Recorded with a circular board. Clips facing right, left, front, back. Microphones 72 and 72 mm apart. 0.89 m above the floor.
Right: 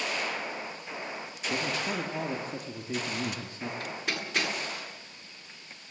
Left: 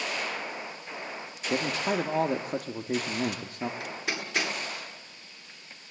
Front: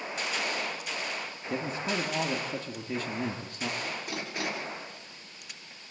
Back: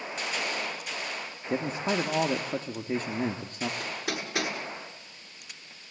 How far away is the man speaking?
About 1.6 m.